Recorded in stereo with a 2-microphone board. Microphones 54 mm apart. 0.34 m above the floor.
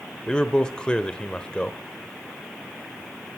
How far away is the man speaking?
About 1.1 m.